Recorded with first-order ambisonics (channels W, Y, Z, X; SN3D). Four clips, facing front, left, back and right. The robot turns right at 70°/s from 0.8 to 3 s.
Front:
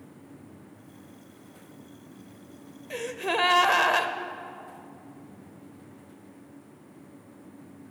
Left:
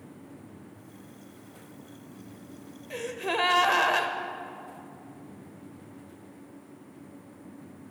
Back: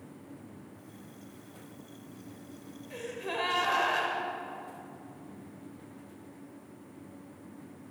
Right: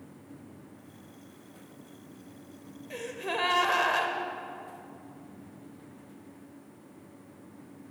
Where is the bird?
I don't hear a bird.